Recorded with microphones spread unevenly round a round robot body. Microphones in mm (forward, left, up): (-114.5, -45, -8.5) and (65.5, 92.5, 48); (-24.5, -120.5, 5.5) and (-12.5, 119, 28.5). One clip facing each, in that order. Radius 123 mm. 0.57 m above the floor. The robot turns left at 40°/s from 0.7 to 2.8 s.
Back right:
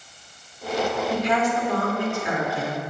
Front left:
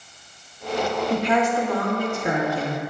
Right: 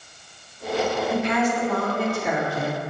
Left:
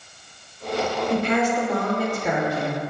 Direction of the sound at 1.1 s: 40° left.